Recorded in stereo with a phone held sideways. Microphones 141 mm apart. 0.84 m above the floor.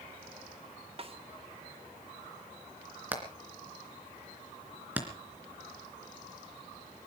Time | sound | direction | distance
1.0 | a snare drum | 40° right (ahead or behind) | 2 m
3.1 | hammering | 10° right (ahead or behind) | 3 m